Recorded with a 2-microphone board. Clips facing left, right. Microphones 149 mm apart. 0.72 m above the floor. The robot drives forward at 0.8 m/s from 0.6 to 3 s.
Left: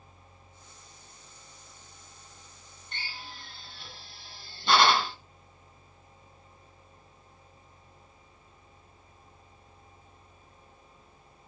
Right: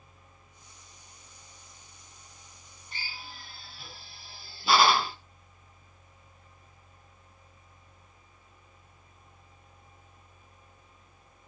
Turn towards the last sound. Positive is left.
turn(degrees=-5)  # may be behind; listen again after turning